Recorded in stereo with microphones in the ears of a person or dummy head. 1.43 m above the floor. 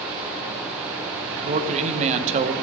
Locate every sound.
1.4 s a man speaking: 40° right (ahead or behind), 0.9 m